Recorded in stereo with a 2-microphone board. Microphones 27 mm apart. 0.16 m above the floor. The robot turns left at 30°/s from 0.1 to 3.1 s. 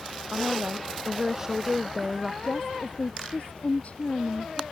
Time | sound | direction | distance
0.3 | a woman speaking | 130° right | ?
2.4 | a woman speaking | 35° left (ahead or behind) | ?